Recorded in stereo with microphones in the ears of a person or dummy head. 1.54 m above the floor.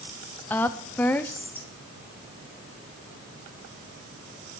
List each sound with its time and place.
0.5 s a woman speaking: 15° left (ahead or behind), 0.5 m